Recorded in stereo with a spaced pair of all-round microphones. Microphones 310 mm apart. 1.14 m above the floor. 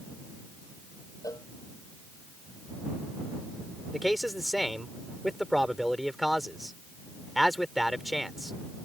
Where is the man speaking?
Centre (ahead or behind).